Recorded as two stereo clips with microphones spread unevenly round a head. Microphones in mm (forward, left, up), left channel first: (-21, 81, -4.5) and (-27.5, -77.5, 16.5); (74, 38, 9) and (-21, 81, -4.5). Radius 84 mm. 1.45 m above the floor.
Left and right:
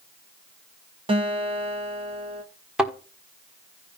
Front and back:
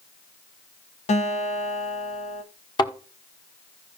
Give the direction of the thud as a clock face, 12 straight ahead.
12 o'clock.